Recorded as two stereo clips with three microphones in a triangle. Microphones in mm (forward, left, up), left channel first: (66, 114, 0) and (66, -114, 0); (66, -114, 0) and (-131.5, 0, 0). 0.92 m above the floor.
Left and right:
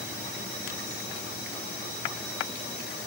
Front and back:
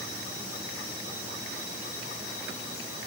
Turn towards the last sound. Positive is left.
No sound to turn to.